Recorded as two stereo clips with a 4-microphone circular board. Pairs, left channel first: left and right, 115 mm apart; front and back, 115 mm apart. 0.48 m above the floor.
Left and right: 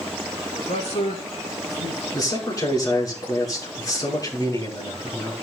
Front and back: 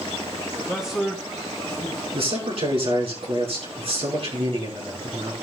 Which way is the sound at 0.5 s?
100° left.